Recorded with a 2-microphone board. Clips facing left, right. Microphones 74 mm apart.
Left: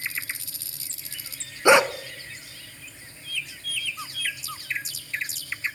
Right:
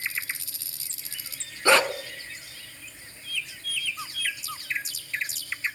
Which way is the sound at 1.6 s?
15° left (ahead or behind).